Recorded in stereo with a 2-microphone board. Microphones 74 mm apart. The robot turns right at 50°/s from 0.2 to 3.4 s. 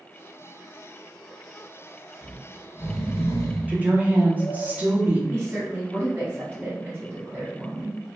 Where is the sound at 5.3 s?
25° right (ahead or behind), 1.4 m.